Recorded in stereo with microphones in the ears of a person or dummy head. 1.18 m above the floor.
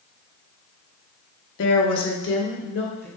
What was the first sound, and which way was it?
A woman speaking, 60° left (ahead or behind).